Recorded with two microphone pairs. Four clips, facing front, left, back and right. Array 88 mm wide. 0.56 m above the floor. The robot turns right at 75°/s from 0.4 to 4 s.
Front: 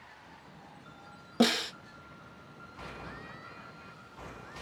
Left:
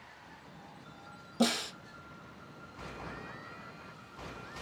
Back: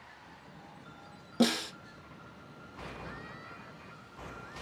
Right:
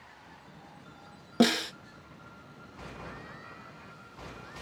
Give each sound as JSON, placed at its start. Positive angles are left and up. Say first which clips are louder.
{"t": 1.4, "sound": "a snare drum", "louder": "right 6 dB, front 1 dB", "azimuth_deg": -75, "distance_m": 1.4}